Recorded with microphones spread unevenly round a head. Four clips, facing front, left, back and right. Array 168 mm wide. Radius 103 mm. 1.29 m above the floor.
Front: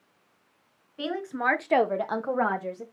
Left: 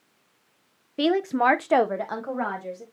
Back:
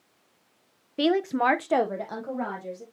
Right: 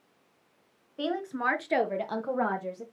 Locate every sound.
1.0 s a woman speaking: 125° left, 1.2 m; by 2.8 s 20° left, 2.0 m